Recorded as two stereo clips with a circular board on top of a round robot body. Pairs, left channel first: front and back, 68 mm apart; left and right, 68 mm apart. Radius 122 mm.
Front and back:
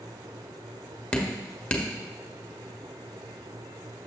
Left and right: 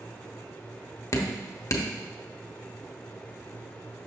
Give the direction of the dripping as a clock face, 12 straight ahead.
10 o'clock.